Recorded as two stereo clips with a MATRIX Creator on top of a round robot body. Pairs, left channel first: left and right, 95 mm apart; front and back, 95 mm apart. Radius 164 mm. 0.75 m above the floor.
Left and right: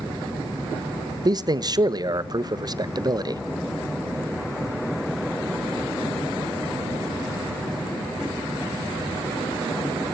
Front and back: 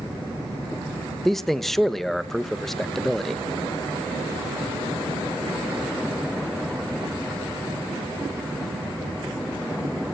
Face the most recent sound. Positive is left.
turn(degrees=-85)